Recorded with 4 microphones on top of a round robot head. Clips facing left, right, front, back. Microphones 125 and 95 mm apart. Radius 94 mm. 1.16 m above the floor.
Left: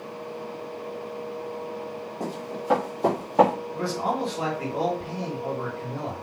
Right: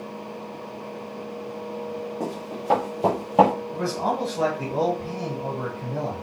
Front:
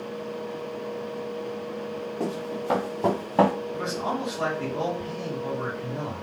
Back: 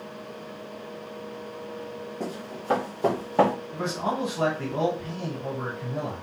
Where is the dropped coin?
I don't hear a dropped coin.